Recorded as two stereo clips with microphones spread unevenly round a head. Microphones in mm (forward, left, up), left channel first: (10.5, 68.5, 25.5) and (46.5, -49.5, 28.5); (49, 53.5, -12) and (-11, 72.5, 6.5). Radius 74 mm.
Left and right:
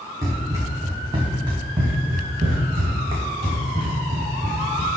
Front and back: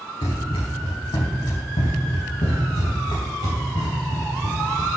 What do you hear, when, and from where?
0.2 s running footsteps: 10° right, 4 m; by 4.9 s 45° right, 4 m